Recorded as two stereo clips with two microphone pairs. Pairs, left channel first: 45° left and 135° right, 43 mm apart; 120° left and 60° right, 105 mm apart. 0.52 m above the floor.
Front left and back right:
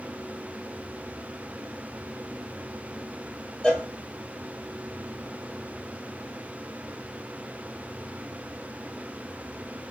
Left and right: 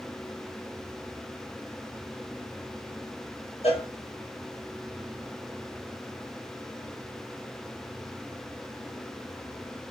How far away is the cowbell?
About 1.1 m.